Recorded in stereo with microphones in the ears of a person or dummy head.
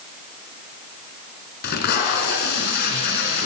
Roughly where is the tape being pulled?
Left.